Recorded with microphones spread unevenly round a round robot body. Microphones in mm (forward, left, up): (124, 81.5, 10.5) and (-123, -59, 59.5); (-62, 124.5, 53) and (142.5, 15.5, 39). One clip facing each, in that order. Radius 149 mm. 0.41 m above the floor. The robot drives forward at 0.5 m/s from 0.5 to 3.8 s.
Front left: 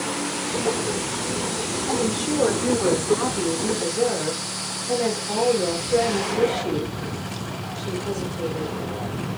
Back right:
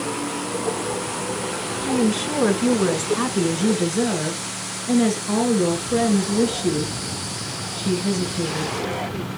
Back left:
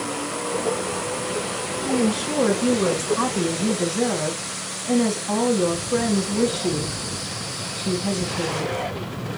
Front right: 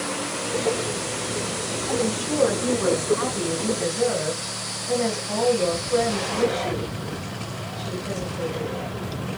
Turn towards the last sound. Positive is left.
turn(degrees=-160)